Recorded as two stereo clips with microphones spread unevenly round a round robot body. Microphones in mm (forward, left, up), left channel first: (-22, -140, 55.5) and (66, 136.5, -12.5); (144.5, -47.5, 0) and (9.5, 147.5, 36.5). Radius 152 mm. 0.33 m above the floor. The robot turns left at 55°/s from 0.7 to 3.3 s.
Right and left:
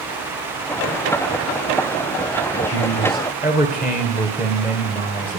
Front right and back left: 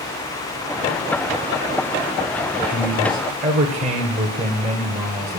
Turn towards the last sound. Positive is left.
turn(degrees=-175)